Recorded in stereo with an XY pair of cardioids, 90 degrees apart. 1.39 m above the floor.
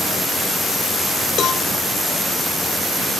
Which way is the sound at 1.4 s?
70° left.